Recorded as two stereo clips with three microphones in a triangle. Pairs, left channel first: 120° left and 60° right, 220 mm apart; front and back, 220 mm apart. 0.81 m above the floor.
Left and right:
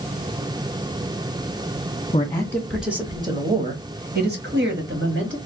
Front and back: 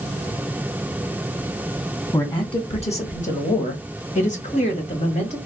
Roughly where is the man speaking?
Ahead left.